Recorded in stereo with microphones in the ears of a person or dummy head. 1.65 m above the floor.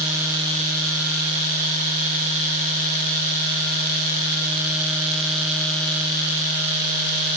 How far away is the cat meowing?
I don't hear a cat meowing.